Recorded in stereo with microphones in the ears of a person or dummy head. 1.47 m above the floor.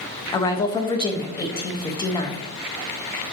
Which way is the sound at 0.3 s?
25° left (ahead or behind).